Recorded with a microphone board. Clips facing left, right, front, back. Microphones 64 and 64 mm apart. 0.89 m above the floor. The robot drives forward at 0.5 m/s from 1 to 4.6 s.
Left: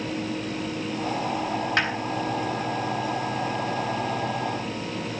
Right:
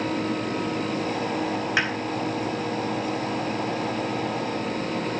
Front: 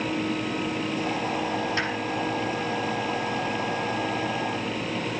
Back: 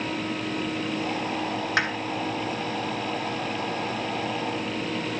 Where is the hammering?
170° right, 3.5 m.